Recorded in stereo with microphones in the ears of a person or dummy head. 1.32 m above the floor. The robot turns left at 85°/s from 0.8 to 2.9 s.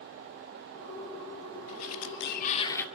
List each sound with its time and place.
1.7 s a sliding door: 110° left, 2 m; by 2.9 s 10° left, 2 m